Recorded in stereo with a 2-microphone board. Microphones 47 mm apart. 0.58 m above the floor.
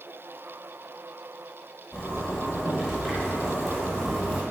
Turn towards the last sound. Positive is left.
turn(degrees=0)  # may be behind; listen again after turning